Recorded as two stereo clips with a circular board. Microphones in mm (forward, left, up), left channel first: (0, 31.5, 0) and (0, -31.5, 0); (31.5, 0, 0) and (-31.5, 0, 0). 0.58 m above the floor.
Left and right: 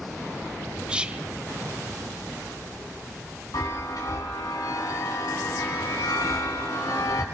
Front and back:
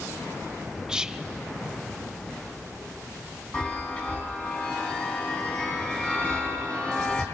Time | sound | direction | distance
0.9 | whispering | 125° right | 0.7 m
3.5 | a chime | 70° left | 4.5 m